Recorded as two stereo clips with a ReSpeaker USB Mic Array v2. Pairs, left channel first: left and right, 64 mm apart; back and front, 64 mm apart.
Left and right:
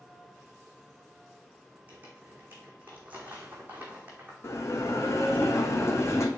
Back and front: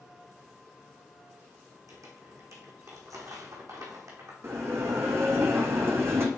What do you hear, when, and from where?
1.9 s crumpling: 25° right, 2 m
4.4 s a bell: 45° left, 1.1 m